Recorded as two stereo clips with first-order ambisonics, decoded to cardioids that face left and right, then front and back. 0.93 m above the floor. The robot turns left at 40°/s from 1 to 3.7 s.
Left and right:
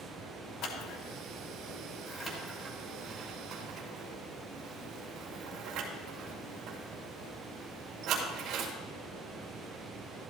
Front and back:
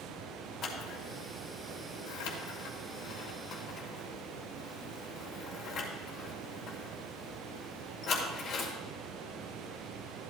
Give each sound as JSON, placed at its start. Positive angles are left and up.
{"t": 0.6, "sound": "scissors", "azimuth_deg": 55, "distance_m": 2.5}